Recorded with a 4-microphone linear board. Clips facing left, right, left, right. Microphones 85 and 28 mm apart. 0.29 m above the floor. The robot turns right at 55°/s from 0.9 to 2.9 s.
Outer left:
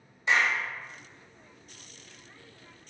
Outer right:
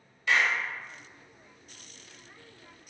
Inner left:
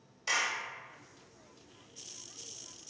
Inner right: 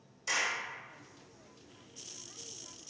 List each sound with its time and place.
0.3 s a clap: 25° left (ahead or behind), 0.7 m